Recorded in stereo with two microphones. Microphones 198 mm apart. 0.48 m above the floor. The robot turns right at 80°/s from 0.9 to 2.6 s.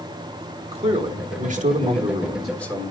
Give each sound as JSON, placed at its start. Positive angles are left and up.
{"t": 0.7, "sound": "a man speaking", "azimuth_deg": -125, "distance_m": 1.2}